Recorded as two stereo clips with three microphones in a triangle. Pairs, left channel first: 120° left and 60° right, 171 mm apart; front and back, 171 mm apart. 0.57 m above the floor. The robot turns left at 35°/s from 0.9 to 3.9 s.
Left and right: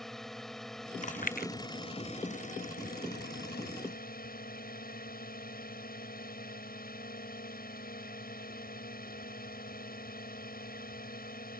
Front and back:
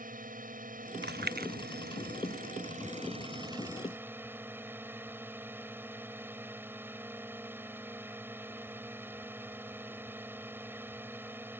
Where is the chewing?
165° left; by 1.5 s 150° left.